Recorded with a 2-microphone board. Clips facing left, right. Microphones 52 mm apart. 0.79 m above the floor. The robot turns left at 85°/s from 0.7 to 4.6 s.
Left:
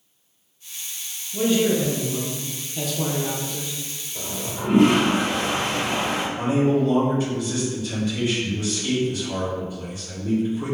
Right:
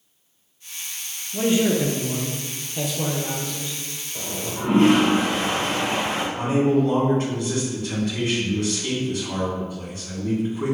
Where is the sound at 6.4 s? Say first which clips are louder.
Right 1 dB; 60° right (ahead or behind), 1.8 m.